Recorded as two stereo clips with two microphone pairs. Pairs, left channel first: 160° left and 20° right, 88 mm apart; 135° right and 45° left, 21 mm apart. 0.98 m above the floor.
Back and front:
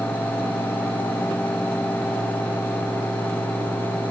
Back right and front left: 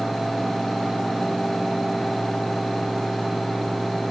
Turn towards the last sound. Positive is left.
No sound to turn to.